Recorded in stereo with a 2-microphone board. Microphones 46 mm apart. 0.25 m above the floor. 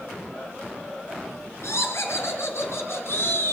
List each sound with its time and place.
1.6 s laughter: 65° left (ahead or behind), 4 m; by 3.5 s 60° left (ahead or behind), 2.5 m